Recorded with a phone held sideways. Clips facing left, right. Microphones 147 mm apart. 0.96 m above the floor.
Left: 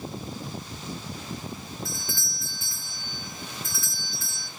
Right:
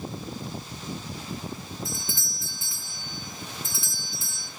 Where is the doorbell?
20° right (ahead or behind), 0.6 m.